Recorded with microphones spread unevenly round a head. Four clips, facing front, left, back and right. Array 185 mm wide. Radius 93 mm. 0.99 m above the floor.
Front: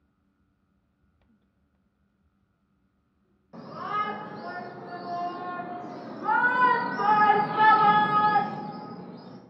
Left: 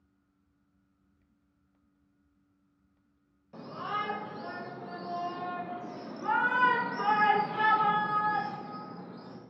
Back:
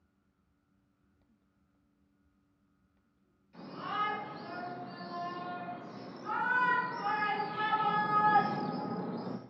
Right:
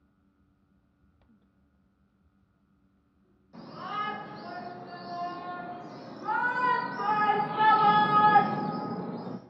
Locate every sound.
3.5 s a shout: 25° left, 6 m; by 9.4 s 125° right, 1.8 m